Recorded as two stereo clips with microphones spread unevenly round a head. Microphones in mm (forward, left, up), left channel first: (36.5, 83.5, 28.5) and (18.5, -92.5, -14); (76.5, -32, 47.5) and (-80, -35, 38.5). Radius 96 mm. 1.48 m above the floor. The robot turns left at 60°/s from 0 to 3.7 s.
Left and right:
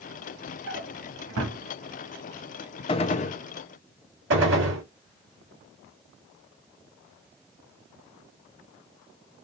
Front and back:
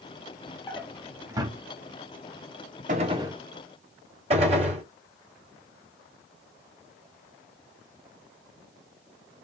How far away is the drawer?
About 1.4 m.